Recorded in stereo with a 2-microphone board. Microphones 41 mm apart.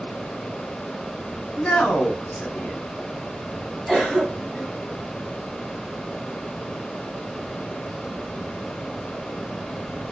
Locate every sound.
1.6 s a man speaking: 25° left (ahead or behind), 1.4 m
3.9 s a cough: 5° right (ahead or behind), 1.6 m